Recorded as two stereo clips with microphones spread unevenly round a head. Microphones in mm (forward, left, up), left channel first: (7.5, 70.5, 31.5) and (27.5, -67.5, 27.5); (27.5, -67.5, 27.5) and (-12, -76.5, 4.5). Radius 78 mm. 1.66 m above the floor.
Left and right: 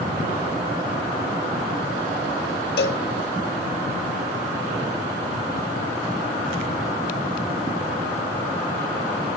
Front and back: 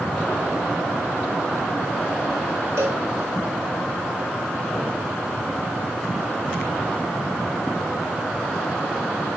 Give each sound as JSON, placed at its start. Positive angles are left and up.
{"t": 2.8, "sound": "a cowbell", "azimuth_deg": 120, "distance_m": 1.4}